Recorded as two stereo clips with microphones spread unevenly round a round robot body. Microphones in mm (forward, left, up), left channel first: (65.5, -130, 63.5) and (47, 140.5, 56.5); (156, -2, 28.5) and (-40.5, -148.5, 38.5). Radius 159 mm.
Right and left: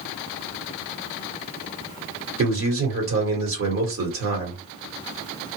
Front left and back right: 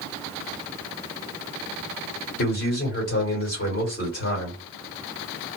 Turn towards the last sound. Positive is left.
turn(degrees=80)